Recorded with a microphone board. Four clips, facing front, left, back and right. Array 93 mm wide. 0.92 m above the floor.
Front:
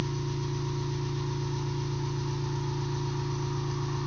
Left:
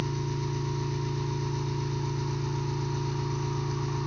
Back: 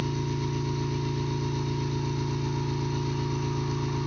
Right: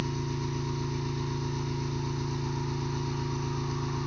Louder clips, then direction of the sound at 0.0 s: Left 1 dB, back 3 dB; straight behind.